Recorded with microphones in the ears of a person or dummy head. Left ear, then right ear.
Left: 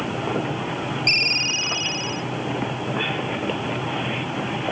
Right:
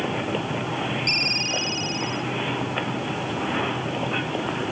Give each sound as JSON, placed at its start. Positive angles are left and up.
{"t": 1.1, "sound": "a ringtone", "side_deg": 30}